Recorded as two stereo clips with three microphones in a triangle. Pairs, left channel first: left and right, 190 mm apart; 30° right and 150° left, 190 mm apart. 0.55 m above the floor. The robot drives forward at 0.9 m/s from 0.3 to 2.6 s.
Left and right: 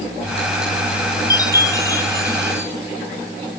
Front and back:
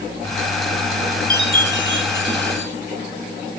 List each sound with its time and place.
1.3 s a chime: 160° left, 2.5 m; by 2.7 s 165° left, 3.5 m